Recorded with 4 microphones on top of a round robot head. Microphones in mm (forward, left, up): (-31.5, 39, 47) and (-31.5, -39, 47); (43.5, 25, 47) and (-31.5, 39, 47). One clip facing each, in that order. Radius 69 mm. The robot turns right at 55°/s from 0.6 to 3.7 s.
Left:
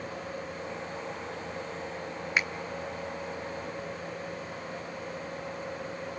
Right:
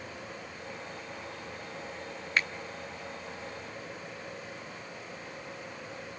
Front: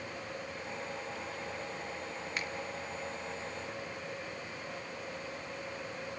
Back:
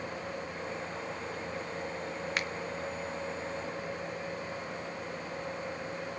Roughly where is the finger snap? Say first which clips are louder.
Left 1 dB, back 4 dB; behind.